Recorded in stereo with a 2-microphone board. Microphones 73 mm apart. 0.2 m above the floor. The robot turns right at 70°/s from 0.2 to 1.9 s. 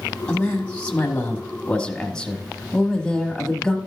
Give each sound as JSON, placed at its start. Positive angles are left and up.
{"t": 0.3, "sound": "a man speaking", "side_deg": 15, "distance_m": 1.2}